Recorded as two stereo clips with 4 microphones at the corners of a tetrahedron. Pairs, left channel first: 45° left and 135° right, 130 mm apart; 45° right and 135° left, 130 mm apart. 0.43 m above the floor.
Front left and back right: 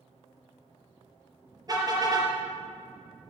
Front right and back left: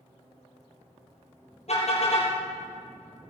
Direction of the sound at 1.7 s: 75° right.